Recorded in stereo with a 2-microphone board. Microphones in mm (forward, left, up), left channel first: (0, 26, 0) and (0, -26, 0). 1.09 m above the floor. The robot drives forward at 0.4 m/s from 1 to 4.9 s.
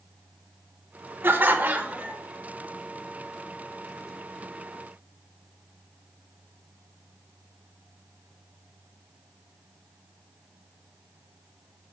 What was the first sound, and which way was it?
Laughter, 45° right (ahead or behind).